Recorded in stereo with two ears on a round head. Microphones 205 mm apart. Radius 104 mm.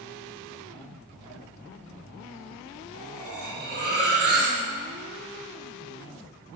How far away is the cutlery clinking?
About 2.5 m.